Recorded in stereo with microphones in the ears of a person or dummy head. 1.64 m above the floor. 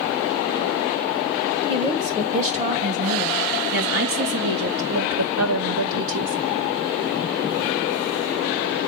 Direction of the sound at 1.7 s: 35° right (ahead or behind).